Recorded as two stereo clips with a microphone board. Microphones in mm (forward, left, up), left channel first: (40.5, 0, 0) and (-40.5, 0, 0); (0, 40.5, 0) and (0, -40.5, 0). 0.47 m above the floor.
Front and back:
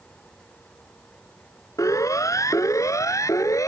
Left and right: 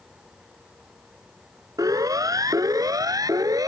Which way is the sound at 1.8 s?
45° right.